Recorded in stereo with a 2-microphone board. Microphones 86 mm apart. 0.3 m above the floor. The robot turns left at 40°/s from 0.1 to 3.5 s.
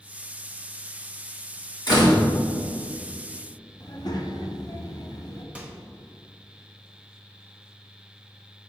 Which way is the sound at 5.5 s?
15° right (ahead or behind).